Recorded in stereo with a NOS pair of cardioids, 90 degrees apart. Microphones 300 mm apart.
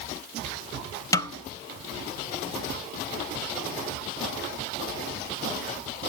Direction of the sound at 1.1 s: 10° left.